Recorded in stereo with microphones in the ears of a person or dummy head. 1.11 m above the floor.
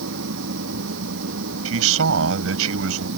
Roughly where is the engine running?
Right.